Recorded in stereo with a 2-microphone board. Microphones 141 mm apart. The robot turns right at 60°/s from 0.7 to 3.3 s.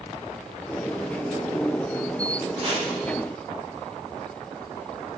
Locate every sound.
2.5 s chopping: 35° right (ahead or behind), 2 m; by 2.9 s 55° right (ahead or behind), 2 m